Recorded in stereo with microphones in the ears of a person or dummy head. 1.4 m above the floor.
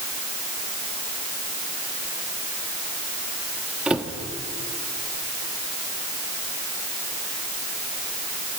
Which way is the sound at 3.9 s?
5° right (ahead or behind).